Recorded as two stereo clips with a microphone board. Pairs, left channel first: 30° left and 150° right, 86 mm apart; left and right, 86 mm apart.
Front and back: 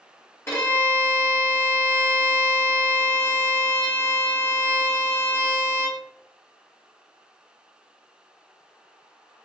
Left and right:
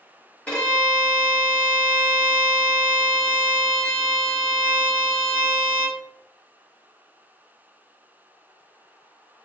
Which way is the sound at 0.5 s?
40° left.